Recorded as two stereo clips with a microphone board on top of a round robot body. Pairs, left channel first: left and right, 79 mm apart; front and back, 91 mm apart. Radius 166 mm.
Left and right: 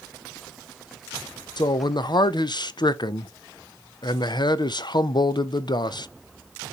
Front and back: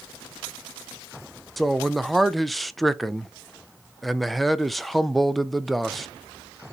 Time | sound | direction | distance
1.6 | a man speaking | 90° left | 0.5 m